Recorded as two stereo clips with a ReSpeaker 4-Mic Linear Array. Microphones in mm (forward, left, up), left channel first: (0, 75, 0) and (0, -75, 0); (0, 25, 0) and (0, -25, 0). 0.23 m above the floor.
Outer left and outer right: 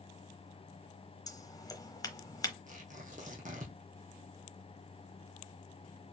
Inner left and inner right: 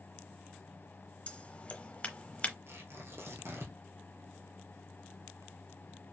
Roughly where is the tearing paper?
Right.